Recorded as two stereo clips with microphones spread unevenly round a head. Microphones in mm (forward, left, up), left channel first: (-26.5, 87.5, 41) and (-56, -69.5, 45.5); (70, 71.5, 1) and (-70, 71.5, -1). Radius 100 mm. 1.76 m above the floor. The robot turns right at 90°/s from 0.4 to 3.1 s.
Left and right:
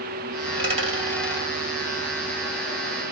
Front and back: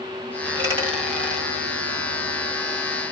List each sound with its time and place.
0.5 s a dropped coin: 135° right, 2.0 m; by 1.5 s 40° right, 2.0 m